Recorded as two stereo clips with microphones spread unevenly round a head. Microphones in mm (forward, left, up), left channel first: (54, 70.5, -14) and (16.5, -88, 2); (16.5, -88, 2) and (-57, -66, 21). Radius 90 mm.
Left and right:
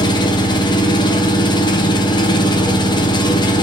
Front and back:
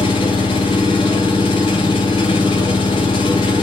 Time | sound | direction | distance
0.0 | an engine running | 15° left | 1.5 m